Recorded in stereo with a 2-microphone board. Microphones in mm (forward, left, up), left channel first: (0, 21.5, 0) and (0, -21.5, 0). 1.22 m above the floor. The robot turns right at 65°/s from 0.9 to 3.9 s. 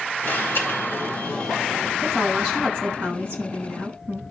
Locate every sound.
0.2 s an alarm: 125° left, 4 m; by 1.9 s 170° right, 4 m
2.0 s a woman speaking: 175° left, 9 m; by 4.2 s 60° right, 9 m